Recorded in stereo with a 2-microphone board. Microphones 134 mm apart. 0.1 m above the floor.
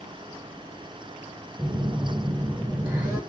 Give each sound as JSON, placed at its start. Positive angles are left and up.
{"t": 1.6, "sound": "a phone buzzing", "side_deg": -15, "distance_m": 1.6}